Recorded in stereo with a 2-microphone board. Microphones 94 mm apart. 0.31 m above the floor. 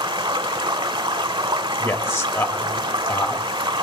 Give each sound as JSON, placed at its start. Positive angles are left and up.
{"t": 0.0, "sound": "running water", "side_deg": -65, "distance_m": 0.9}
{"t": 1.8, "sound": "a man speaking", "side_deg": 30, "distance_m": 1.0}